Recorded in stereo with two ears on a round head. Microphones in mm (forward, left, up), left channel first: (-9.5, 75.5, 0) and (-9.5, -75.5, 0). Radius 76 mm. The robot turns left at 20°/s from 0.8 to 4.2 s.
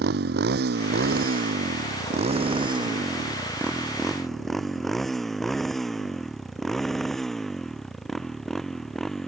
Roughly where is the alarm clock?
I don't hear an alarm clock.